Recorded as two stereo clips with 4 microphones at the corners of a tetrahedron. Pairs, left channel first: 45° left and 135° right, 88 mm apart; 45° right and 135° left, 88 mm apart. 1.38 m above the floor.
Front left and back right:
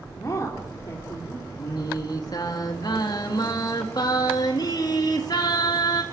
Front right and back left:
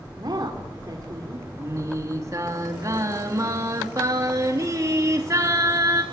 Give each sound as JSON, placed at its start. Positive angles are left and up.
{"t": 0.2, "sound": "a woman speaking", "azimuth_deg": 100, "distance_m": 4.0}
{"t": 1.6, "sound": "singing", "azimuth_deg": 85, "distance_m": 3.0}